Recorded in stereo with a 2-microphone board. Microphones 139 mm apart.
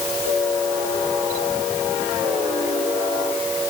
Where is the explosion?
No explosion in this recording.